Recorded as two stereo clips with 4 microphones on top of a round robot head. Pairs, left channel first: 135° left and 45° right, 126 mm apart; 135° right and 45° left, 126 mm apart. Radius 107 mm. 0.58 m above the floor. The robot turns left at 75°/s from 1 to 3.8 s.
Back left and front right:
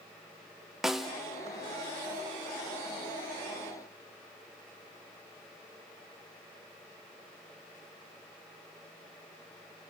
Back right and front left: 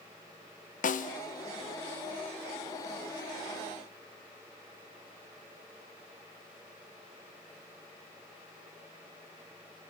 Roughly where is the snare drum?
Behind right.